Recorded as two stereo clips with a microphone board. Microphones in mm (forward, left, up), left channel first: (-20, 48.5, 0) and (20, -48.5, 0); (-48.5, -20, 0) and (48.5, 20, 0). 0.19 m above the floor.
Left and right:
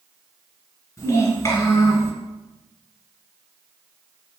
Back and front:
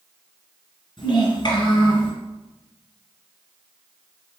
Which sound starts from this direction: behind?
A child speaking, at 1.0 s.